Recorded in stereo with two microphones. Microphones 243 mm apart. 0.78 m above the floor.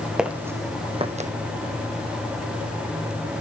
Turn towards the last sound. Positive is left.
turn(degrees=-30)  # may be behind; listen again after turning